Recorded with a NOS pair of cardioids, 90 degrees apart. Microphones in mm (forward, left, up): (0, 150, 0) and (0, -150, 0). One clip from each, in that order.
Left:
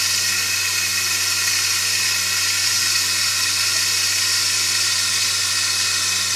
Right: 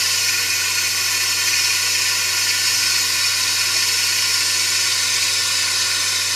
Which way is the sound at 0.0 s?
Straight ahead.